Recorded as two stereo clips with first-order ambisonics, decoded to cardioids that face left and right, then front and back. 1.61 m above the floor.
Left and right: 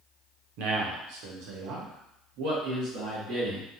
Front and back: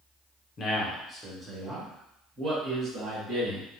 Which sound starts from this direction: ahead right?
A man speaking, at 0.6 s.